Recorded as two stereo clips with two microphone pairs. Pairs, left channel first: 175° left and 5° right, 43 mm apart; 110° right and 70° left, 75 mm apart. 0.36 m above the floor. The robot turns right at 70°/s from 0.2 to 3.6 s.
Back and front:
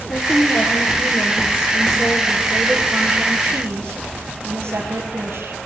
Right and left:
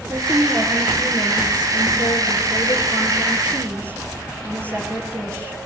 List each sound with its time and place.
0.1 s a woman speaking: 130° left, 6.5 m; by 5.6 s 10° left, 6.5 m